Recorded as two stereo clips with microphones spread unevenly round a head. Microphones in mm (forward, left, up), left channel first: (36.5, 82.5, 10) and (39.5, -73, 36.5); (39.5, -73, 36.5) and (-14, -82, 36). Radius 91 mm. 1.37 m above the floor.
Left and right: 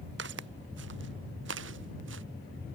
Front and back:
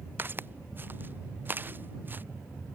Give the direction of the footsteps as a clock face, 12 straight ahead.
4 o'clock.